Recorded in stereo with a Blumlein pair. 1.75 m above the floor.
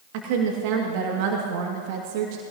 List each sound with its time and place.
0.1 s a woman speaking: 45° right, 2.5 m